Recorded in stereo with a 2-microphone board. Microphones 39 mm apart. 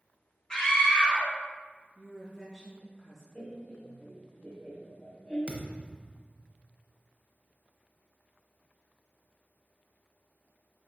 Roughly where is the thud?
Right.